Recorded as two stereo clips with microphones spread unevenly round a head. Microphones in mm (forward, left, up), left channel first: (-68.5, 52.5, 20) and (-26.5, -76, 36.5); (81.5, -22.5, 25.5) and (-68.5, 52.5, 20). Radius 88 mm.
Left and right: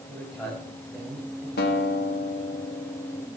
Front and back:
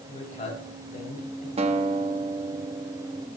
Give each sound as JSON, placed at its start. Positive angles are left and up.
{"t": 0.1, "sound": "a man speaking", "azimuth_deg": 25, "distance_m": 5.5}
{"t": 1.6, "sound": "a guitar", "azimuth_deg": 100, "distance_m": 1.3}